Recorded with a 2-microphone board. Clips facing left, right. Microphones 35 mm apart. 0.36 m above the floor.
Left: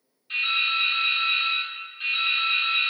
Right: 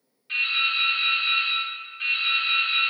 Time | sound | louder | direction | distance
0.3 | dripping | even | 45° right (ahead or behind) | 1.6 m